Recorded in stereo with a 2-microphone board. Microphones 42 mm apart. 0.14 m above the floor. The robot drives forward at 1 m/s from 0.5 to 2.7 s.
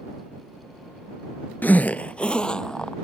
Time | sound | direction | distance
1.6 | a zipper | 50° left (ahead or behind) | ?